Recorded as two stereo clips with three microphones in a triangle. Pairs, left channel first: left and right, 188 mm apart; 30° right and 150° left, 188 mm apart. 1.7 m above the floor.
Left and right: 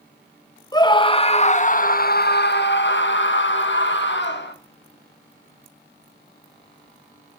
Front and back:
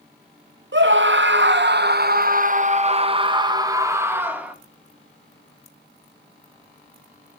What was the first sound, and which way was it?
A scream, 160° left.